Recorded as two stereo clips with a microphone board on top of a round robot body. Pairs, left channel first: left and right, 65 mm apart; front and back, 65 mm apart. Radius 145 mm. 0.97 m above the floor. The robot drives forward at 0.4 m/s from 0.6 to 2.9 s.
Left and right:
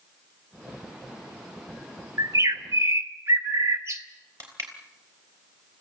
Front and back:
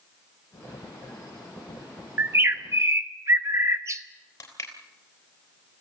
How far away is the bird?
About 1.1 m.